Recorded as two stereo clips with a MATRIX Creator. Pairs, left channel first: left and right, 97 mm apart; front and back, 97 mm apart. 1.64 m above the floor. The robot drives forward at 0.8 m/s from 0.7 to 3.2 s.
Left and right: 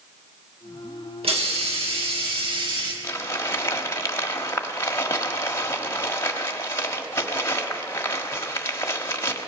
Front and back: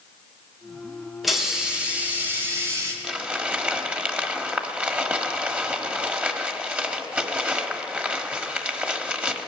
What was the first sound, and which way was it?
A hiss, 90° right.